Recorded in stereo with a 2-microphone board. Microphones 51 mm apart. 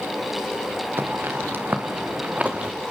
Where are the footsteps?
45° right (ahead or behind), 3.5 m; by 2.7 s 25° right (ahead or behind), 2.5 m.